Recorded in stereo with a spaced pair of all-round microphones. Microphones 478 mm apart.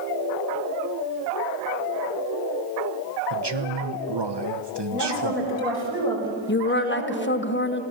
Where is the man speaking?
60° right (ahead or behind), 1.2 m.